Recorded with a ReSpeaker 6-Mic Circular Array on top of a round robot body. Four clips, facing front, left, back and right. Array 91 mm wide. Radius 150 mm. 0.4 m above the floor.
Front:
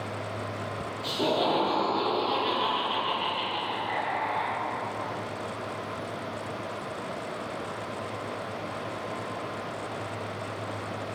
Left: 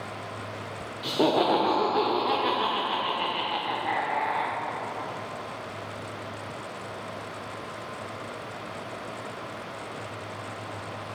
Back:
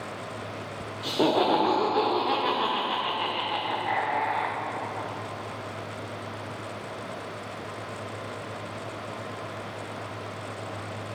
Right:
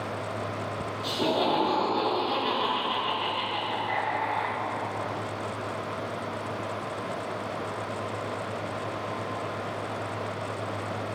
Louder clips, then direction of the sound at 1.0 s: Left 4 dB, back 4 dB; 130° left.